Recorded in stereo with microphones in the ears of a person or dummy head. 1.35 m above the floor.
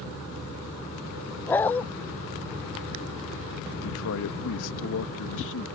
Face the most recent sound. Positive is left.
turn(degrees=75)  # may be behind; listen again after turning